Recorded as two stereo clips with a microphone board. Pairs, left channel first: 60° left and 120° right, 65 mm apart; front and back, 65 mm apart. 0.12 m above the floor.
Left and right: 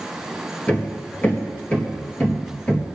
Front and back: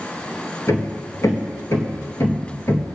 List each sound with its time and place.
0.7 s hammering: straight ahead, 1.9 m